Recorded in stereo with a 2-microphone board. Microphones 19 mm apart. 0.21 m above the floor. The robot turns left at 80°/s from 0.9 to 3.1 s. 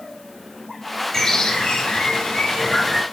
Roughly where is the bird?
Behind left.